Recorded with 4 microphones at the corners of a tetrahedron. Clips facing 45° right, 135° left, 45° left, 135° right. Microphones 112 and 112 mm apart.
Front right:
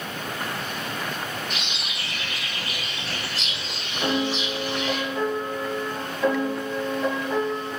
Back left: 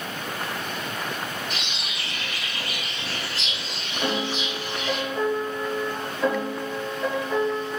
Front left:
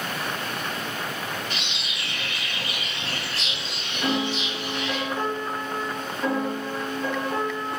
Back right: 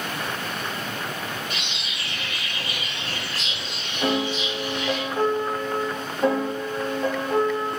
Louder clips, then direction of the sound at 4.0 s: Front right 2 dB, back right 2 dB; 140° right.